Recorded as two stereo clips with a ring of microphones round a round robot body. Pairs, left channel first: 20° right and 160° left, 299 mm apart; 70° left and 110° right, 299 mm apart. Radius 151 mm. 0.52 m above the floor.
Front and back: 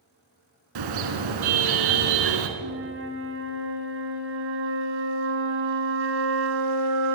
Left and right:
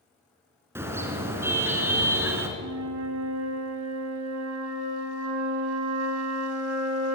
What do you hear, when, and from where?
0.8 s a car horn: 165° left, 3.5 m
2.6 s a flute: 150° right, 3 m